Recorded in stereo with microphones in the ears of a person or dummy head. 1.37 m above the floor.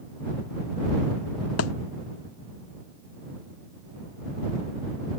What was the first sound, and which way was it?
A thud, 80° left.